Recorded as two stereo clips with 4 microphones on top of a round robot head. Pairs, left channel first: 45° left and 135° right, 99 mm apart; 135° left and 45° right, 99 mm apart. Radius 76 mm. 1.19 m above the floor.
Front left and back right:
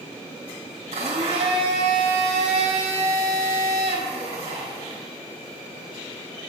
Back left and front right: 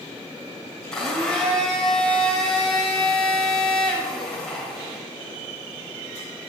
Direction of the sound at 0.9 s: 140° right.